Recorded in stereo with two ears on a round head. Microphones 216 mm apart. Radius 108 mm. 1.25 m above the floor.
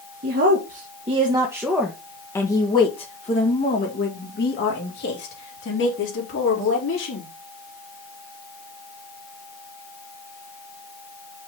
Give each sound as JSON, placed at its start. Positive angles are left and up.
{"t": 0.2, "sound": "a woman speaking", "side_deg": -45, "distance_m": 1.4}